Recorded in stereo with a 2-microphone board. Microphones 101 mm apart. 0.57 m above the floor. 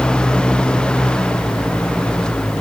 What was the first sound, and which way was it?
Only background noise.